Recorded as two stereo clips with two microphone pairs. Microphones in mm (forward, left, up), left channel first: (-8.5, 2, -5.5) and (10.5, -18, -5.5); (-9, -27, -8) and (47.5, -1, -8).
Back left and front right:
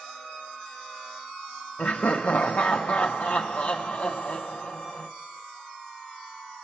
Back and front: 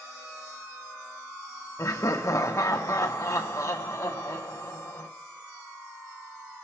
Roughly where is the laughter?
Behind.